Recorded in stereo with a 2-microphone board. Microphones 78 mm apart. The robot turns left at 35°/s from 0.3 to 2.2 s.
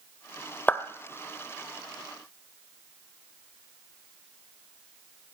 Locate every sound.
0.7 s a clap: 20° left (ahead or behind), 1.1 m; by 0.8 s 25° left (ahead or behind), 1.1 m